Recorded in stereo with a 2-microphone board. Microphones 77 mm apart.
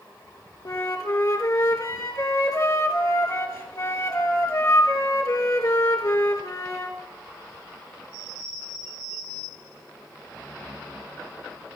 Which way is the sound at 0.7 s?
50° left (ahead or behind).